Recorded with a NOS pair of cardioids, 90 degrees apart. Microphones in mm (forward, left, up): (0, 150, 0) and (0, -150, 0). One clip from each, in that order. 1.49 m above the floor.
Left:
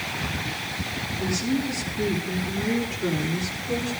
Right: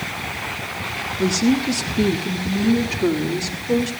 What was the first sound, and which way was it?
A woman speaking, 65° right.